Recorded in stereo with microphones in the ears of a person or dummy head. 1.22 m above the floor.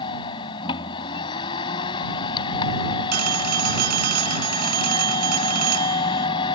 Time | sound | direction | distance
0.0 | a machine running | 30° left (ahead or behind) | ?
3.1 | a phone ringing | 55° right (ahead or behind) | ?